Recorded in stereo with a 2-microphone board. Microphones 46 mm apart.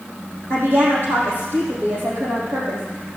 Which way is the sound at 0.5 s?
60° right (ahead or behind).